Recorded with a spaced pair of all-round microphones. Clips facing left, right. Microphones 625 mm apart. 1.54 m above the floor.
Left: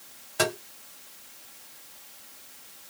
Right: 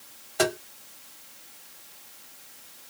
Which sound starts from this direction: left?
Tapping, at 0.4 s.